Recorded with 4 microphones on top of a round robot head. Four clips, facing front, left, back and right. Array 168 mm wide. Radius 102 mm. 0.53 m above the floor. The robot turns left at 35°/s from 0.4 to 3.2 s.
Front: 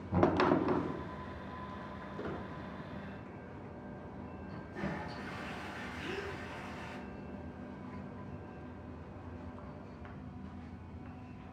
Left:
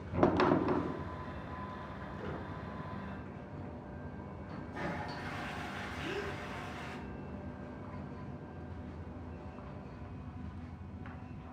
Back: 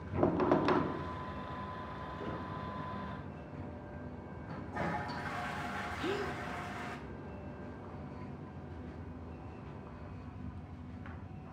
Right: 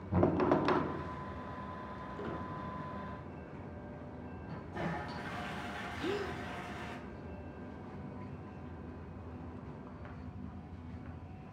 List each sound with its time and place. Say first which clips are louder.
0.1 s knocking: left 1 dB, front 2 dB; 45° right, 4 m
2.2 s a squeak: right 2 dB, front 1 dB; 45° right, 4 m; by 2.5 s 55° right, 4 m
4.5 s a toilet flushing: right 1 dB, back 4 dB; 155° right, 4 m
6.0 s a gasp: right 4 dB, back 5 dB; 135° right, 0.9 m